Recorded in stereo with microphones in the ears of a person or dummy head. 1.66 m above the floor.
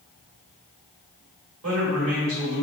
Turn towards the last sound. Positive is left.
turn(degrees=-75)  # may be behind; listen again after turning